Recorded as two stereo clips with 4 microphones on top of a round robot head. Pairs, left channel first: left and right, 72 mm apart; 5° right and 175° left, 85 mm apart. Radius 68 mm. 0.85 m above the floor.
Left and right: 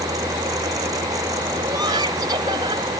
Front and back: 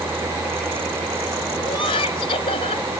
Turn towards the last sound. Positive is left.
turn(degrees=-40)